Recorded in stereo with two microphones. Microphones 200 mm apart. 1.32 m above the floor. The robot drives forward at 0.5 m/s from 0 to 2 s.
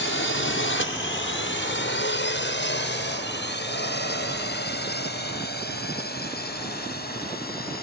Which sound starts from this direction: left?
A drone, at 0.0 s.